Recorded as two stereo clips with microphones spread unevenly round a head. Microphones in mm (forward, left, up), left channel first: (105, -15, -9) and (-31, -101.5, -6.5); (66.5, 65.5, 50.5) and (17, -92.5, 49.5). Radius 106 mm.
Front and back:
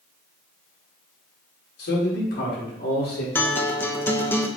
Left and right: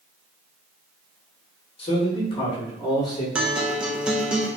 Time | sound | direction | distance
1.8 | a man speaking | 15° left | 2.5 m
3.4 | a guitar | 30° right | 0.9 m